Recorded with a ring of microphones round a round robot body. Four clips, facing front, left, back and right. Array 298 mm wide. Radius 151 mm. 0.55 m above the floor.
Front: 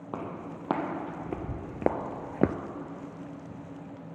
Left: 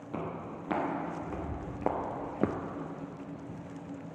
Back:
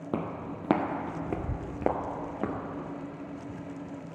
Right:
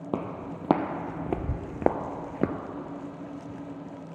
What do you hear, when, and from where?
0.1 s footsteps: 120° right, 1.4 m; by 2.5 s straight ahead, 0.6 m